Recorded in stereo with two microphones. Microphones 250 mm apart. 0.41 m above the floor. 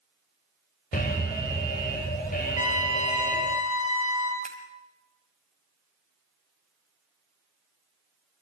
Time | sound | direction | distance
0.9 | an alarm | 35° left (ahead or behind) | 3 m
2.5 | a trumpet | 70° right (ahead or behind) | 3 m
4.4 | scissors | 30° right (ahead or behind) | 1.9 m